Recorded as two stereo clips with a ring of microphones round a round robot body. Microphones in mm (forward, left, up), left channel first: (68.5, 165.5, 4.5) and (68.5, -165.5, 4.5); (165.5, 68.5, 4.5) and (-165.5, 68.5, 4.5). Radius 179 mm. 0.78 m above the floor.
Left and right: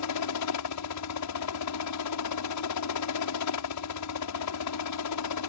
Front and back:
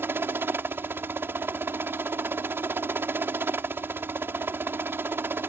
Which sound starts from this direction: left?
A helicopter, at 0.0 s.